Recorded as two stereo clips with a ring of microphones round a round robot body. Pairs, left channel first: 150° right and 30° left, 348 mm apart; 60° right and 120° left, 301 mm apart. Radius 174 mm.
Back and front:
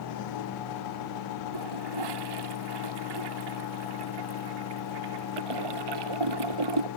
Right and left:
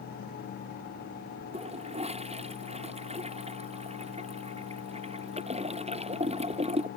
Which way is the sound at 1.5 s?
50° left.